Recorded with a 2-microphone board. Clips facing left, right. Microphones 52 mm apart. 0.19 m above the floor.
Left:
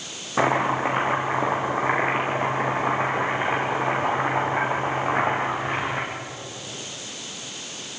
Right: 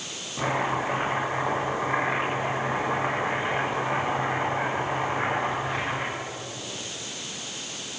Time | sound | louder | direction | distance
0.4 | chopping | left 5 dB | 55° left (ahead or behind) | 9 m